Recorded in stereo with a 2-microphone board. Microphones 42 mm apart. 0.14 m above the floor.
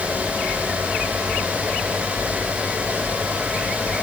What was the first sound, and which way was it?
Only background noise.